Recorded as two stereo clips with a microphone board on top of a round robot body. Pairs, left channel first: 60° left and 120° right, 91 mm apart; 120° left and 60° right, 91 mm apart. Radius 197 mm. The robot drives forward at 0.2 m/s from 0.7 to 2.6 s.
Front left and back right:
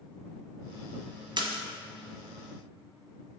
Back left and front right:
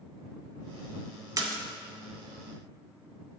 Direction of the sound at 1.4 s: 105° right.